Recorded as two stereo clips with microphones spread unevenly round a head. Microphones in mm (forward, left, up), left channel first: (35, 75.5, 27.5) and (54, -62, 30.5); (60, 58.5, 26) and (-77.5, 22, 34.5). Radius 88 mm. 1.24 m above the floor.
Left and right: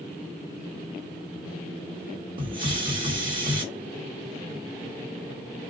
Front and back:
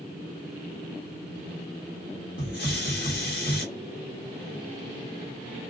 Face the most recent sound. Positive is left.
turn(degrees=-25)